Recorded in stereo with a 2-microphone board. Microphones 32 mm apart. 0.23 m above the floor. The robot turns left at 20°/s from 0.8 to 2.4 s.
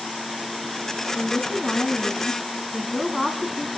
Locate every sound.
1.1 s a woman speaking: 30° right (ahead or behind), 2.5 m; by 3.7 s 10° right (ahead or behind), 2.5 m